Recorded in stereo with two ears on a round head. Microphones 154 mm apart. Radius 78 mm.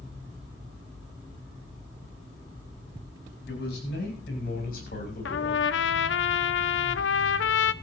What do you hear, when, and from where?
3.5 s a man speaking: 65° left (ahead or behind), 9 m; by 5.7 s 45° left (ahead or behind), 7.5 m
5.2 s a trumpet: 75° left (ahead or behind), 0.7 m